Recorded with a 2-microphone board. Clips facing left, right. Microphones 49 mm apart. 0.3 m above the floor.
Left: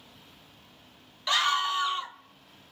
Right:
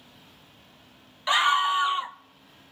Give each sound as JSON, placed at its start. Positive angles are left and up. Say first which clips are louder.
{"t": 1.3, "sound": "a scream", "louder": "right 4 dB", "side_deg": -20, "distance_m": 0.9}